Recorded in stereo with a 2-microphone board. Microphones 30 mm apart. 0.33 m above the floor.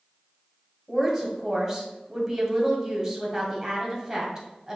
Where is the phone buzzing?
No phone buzzing in this recording.